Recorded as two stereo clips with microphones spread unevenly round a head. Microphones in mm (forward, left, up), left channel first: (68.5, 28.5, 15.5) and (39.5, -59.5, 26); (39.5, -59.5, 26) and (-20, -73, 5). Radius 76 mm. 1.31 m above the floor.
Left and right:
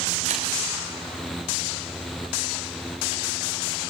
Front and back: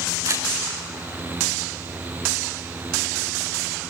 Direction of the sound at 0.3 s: 130° right.